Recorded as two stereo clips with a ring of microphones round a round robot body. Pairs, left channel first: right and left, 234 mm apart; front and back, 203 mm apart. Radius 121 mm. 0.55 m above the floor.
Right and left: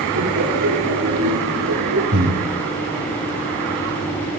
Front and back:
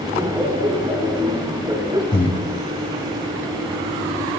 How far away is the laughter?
About 4.5 m.